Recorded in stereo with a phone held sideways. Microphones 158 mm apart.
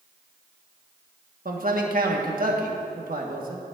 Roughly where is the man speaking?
Right.